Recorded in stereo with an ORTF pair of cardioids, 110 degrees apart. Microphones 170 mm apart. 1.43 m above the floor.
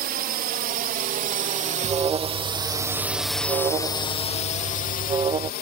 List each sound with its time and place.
0.0 s a drone: 65° right; by 5.6 s 70° left
1.8 s an alarm: 30° right